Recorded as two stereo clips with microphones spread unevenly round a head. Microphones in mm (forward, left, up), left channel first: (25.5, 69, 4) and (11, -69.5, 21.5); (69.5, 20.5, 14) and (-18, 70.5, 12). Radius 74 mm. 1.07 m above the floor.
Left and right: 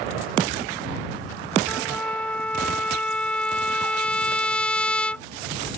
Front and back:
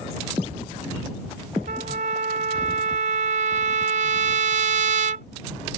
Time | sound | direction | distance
1.7 | a trumpet | 170° left | ?